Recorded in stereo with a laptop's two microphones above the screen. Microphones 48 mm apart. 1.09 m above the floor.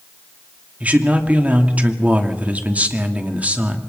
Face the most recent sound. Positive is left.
turn(degrees=-30)  # may be behind; listen again after turning